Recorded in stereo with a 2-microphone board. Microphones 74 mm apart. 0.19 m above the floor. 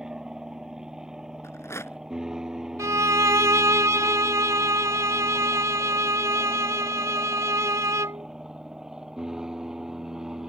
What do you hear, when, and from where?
0.0 s an aircraft: 10° right (ahead or behind); by 10.5 s 5° right (ahead or behind)
1.4 s a rattle: 35° left (ahead or behind)
2.8 s a violin: 45° right (ahead or behind)